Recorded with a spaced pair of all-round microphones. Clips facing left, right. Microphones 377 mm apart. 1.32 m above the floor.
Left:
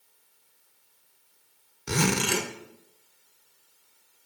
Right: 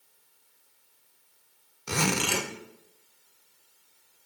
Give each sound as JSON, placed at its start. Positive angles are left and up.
{"t": 1.9, "sound": "a zipper", "side_deg": 30, "distance_m": 0.5}